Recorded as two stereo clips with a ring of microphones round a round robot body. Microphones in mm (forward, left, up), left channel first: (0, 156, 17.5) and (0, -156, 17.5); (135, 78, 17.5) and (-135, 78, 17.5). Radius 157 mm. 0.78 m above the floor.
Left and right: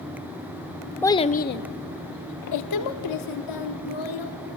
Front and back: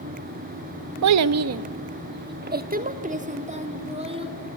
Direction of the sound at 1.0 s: 175° left.